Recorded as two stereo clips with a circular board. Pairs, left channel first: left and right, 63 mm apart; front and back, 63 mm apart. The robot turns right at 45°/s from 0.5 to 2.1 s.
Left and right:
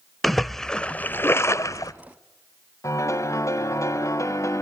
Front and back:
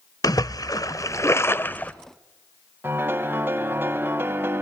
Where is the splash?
Straight ahead, 0.7 m; by 1.9 s 65° left, 0.7 m.